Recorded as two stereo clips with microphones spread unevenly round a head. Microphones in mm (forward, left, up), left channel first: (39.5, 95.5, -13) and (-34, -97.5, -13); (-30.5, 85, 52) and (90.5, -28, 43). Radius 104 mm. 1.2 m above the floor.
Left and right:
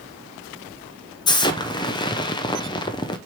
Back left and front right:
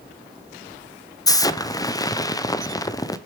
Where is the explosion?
100° left, 0.6 m.